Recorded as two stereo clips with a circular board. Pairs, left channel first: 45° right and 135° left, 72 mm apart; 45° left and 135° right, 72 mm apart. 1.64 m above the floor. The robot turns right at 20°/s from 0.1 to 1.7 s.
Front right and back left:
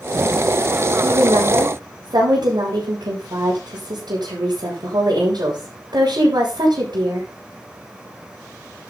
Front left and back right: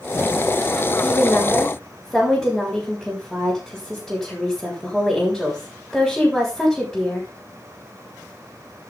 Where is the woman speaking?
115° left, 7 m; by 7.3 s 130° left, 7 m.